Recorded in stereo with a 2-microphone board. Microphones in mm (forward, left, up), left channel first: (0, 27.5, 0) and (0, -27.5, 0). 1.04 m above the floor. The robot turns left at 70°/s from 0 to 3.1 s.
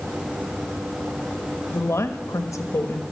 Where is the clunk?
No clunk in this recording.